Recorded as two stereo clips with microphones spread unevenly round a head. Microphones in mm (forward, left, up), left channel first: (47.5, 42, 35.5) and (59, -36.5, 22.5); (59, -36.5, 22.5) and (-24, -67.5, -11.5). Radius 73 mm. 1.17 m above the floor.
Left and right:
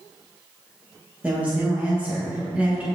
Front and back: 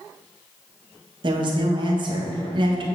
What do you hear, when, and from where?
1.2 s a woman speaking: 155° right, 1.7 m